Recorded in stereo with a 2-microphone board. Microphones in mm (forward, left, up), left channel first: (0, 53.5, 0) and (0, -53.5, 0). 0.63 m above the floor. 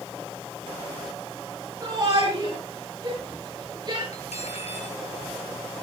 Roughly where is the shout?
Right.